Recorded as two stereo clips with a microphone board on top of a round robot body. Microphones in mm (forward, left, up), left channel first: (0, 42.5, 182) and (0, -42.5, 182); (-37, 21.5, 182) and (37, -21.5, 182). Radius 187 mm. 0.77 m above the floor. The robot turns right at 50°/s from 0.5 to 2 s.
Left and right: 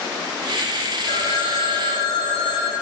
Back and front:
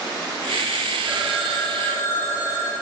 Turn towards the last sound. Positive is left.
turn(degrees=85)